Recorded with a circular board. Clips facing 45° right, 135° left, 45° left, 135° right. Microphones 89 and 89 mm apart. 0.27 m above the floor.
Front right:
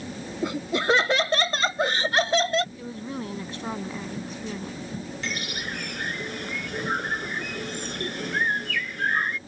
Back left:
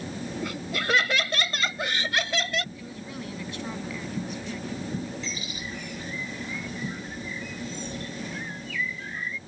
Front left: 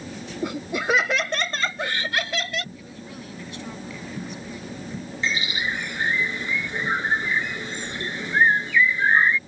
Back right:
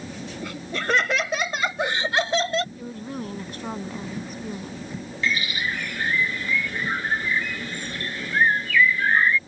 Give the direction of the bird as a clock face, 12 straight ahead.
1 o'clock.